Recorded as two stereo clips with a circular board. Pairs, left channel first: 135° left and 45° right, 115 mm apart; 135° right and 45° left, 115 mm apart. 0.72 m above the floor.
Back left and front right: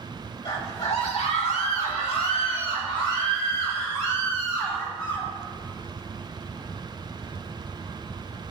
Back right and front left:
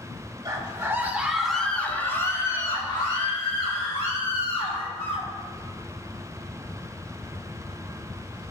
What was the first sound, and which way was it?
A scream, 100° left.